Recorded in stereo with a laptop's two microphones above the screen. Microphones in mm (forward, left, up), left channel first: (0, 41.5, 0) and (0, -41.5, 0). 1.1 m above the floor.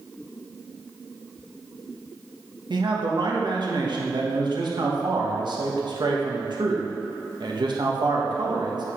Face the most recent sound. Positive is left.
turn(degrees=-65)  # may be behind; listen again after turning